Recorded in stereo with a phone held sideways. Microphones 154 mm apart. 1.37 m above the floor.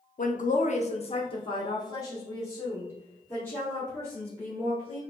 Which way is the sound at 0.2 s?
60° left (ahead or behind).